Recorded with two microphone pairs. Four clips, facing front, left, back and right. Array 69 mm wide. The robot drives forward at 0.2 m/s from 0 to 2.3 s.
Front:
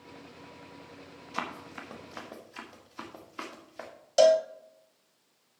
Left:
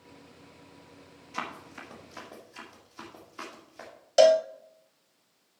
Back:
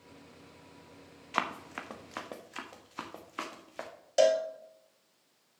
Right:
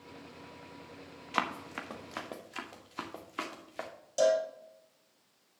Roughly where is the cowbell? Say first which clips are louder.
Left 8 dB, front 4 dB; left.